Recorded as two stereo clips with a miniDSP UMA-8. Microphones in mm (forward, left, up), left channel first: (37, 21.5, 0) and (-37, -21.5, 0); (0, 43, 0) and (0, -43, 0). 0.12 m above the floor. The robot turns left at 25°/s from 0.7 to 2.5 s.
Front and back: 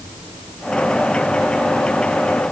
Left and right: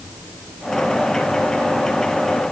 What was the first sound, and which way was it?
Only background noise.